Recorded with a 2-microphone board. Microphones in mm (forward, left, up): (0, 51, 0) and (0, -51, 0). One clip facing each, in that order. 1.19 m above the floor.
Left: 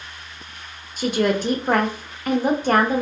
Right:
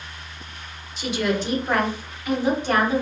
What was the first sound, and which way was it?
A woman speaking, 45° left (ahead or behind).